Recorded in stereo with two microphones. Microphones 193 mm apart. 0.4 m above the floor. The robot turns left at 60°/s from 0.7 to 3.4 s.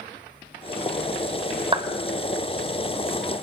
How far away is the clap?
About 1.2 m.